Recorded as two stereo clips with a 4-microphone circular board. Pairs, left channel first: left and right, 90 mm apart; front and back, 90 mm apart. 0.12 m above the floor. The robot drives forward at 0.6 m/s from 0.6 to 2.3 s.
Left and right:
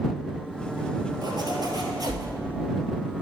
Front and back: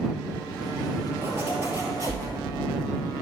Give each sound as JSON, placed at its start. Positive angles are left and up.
{"t": 1.2, "sound": "a zipper", "azimuth_deg": -120, "distance_m": 1.7}